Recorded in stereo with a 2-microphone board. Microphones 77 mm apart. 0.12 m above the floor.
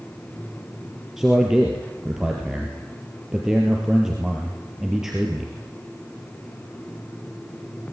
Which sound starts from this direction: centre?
A man speaking, at 1.2 s.